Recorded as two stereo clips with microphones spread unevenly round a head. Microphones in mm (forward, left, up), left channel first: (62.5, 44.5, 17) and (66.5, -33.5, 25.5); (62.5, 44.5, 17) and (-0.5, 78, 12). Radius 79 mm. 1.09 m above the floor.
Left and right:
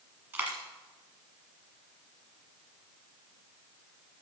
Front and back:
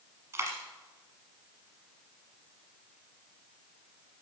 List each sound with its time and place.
0.3 s a dropped coin: 150° right, 1.3 m